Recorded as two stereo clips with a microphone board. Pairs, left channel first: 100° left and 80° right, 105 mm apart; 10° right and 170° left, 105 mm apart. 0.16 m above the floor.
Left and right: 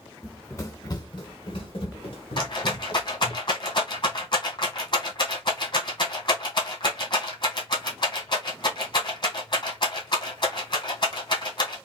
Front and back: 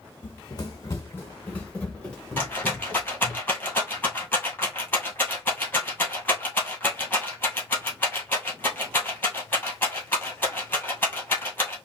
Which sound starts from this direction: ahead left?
A rattle, at 2.4 s.